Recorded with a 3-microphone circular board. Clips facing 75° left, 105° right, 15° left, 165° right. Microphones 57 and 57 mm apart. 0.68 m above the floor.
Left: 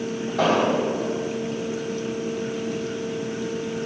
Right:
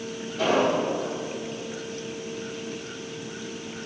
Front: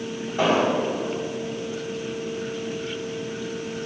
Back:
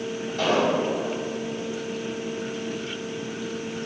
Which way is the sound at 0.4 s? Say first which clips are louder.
Left 2 dB, front 2 dB; 80° left.